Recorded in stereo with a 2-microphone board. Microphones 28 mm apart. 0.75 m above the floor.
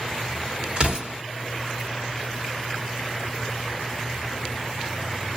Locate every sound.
0.8 s an explosion: 35° right (ahead or behind), 2 m